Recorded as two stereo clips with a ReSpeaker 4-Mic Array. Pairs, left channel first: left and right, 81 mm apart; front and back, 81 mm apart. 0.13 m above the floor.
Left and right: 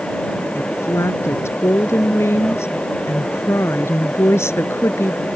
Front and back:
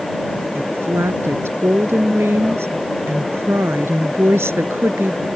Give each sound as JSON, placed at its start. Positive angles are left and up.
{"t": 0.6, "sound": "a woman speaking", "azimuth_deg": 130}